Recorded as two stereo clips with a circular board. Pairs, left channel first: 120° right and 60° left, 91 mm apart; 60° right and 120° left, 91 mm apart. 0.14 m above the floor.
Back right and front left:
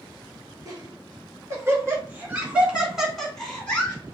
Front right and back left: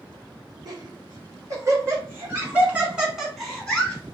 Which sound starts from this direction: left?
Laughter, at 0.7 s.